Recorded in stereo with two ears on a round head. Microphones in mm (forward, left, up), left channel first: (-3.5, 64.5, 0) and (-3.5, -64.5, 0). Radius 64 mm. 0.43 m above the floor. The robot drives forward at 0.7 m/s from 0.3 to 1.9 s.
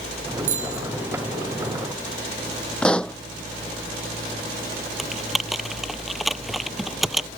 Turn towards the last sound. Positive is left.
turn(degrees=0)  # may be behind; listen again after turning